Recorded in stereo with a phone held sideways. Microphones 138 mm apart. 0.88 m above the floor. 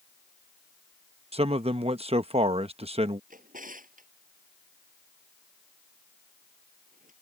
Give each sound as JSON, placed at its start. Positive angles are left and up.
{"t": 1.3, "sound": "a man speaking", "side_deg": -45}
{"t": 3.3, "sound": "a drawer", "side_deg": -80}